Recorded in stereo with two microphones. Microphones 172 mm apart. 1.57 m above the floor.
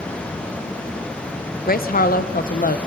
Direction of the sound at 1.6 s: 60° left (ahead or behind).